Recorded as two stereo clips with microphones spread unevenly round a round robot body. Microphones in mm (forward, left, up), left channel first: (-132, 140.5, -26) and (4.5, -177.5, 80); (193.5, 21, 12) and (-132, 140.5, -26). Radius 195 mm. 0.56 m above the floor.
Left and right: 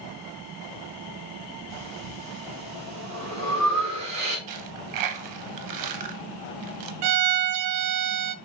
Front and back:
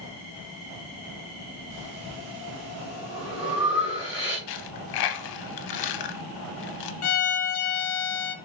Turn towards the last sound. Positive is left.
turn(degrees=-65)